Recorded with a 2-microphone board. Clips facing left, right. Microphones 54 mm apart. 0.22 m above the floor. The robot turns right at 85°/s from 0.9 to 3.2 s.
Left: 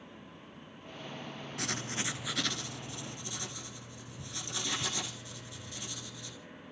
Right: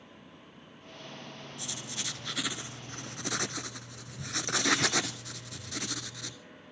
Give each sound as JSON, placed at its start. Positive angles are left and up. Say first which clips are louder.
{"t": 1.6, "sound": "writing", "louder": "left 6 dB", "azimuth_deg": 115, "distance_m": 1.0}